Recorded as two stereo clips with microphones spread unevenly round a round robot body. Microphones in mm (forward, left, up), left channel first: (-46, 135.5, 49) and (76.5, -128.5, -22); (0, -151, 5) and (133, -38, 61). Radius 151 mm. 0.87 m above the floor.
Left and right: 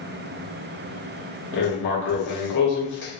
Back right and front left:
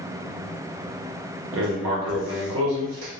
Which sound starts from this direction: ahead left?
Writing, at 1.5 s.